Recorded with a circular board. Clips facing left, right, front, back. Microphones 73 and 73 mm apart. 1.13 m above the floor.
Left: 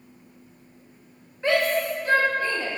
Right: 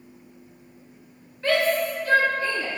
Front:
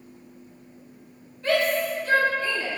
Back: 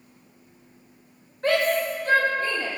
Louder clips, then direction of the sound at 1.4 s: Even, back 1 dB; 160° left.